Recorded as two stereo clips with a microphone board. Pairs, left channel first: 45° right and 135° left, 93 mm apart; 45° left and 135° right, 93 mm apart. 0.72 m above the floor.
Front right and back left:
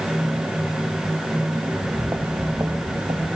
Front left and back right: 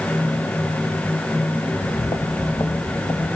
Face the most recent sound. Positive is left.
turn(degrees=100)